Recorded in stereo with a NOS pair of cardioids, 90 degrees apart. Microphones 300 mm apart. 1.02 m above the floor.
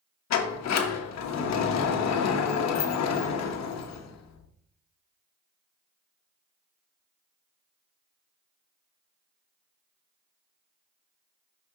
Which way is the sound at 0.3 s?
60° left.